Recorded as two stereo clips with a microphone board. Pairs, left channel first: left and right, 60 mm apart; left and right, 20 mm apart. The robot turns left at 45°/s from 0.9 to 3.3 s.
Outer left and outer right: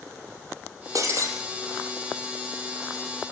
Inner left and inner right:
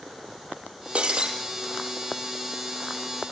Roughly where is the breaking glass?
Right.